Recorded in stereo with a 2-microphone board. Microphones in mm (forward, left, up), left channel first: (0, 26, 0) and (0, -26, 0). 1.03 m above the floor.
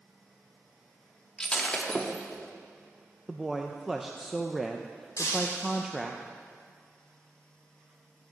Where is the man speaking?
Centre (ahead or behind), 0.5 m.